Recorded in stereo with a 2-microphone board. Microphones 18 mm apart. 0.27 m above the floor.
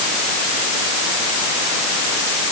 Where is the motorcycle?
No motorcycle in this recording.